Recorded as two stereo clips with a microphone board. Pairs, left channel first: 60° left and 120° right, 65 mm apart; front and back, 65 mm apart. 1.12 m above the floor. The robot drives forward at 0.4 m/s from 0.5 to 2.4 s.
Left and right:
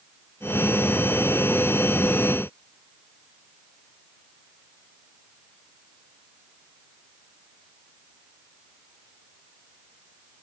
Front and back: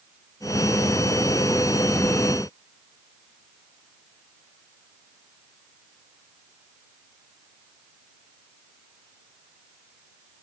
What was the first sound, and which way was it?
Only background noise.